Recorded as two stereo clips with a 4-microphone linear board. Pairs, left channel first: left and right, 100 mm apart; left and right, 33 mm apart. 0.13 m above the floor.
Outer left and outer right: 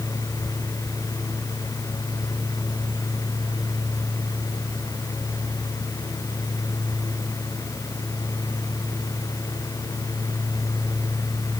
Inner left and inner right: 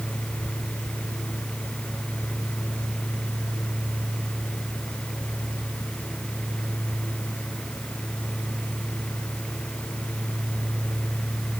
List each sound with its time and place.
Only background noise.